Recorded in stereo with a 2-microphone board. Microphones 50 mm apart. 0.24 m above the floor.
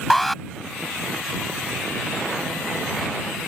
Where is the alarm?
5° left (ahead or behind).